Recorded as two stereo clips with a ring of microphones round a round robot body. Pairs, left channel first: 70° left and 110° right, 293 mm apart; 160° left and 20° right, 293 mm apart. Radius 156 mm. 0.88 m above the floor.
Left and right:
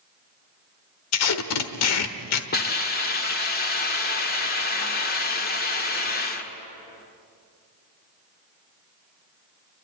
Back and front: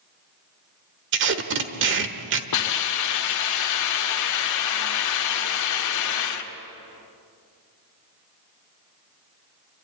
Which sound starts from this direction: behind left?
A hiss, at 2.5 s.